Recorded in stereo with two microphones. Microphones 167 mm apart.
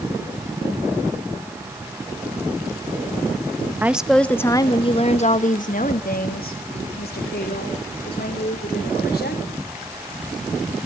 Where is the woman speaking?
10° right (ahead or behind), 0.8 m; by 9.5 s 80° left, 3.5 m.